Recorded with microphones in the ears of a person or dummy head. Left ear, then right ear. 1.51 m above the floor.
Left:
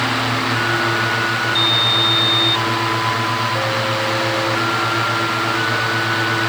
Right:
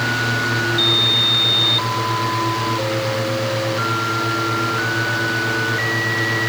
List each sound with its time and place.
Only background noise.